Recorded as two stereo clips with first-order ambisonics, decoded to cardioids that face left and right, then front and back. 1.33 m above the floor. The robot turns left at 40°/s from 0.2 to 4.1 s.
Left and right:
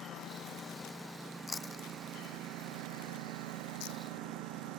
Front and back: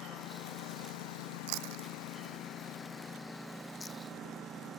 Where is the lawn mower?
40° left; by 4.8 s 115° right.